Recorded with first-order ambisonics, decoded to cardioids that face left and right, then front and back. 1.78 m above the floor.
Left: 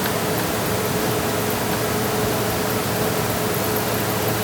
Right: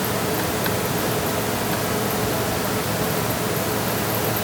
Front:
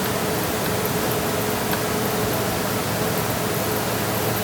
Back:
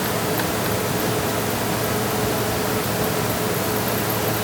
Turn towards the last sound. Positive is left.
No sound to turn to.